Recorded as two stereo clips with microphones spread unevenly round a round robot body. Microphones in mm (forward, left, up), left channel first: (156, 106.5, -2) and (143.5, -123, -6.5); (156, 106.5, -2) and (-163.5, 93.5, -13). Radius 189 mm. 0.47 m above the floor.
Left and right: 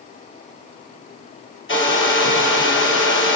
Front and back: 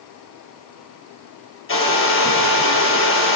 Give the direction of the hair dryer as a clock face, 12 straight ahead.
10 o'clock.